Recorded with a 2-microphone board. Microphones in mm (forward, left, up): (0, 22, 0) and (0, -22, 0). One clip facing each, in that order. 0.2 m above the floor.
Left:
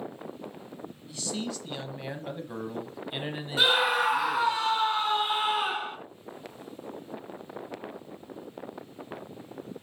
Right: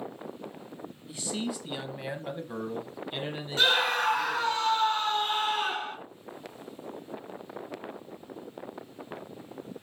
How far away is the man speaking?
About 1.4 m.